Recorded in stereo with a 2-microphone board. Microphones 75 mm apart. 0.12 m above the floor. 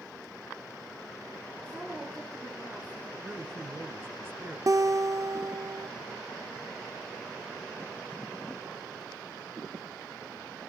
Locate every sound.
1.6 s a woman speaking: 25° right (ahead or behind), 5.5 m; by 3.1 s 35° right (ahead or behind), 5 m
3.2 s a man speaking: 30° right (ahead or behind), 1.3 m
4.7 s a guitar: 45° right (ahead or behind), 0.6 m